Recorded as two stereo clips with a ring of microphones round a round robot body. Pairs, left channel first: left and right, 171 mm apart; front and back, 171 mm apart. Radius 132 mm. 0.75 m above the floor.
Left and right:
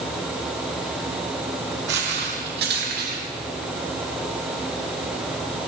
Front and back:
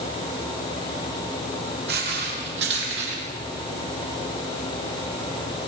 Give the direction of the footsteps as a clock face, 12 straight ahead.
4 o'clock.